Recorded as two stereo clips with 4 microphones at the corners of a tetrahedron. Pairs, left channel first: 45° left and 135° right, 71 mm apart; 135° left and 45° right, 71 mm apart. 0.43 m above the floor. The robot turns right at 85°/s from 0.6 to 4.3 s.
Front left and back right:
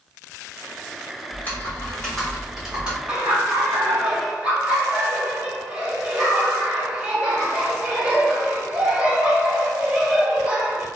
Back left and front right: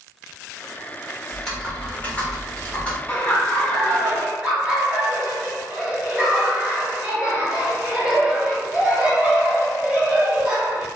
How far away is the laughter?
About 1.3 m.